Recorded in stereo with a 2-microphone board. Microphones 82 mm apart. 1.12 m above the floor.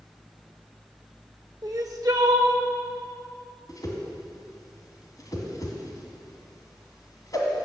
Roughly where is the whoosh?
Left.